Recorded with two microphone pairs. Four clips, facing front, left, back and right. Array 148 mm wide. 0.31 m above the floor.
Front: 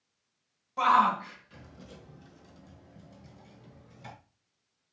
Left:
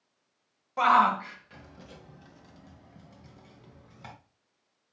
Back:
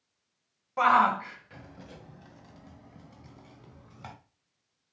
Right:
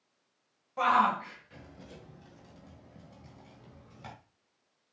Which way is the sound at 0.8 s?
135° left.